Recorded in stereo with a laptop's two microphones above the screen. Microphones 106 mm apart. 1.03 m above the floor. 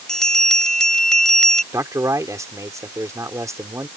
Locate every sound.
0.1 s a bell: 5° left (ahead or behind)
1.7 s a man speaking: 30° right (ahead or behind)